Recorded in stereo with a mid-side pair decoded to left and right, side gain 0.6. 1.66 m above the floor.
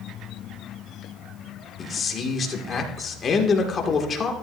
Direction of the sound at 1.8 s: 35° left.